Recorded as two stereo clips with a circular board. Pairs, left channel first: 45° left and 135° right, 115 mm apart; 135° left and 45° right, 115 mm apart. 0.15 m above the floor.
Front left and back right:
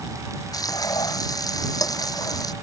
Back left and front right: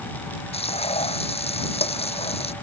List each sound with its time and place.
0.5 s frying: 105° left